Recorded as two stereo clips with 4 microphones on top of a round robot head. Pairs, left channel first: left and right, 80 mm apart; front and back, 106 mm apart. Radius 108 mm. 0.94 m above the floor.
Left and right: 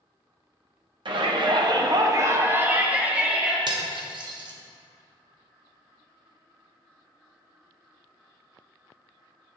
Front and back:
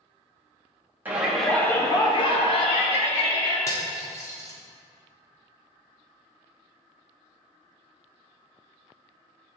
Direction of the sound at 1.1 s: 105° right.